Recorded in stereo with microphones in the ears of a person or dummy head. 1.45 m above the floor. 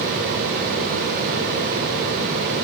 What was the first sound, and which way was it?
Only background noise.